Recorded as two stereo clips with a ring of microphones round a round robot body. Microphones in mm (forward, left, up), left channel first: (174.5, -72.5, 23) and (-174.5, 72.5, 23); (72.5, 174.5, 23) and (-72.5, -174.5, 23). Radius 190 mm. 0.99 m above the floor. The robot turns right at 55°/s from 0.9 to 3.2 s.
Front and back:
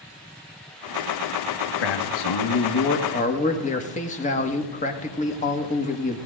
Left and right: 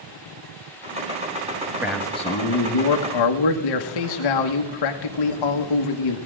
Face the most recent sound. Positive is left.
turn(degrees=50)